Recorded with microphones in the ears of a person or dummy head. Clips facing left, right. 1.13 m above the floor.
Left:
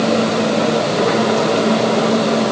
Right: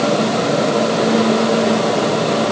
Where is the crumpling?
I don't hear crumpling.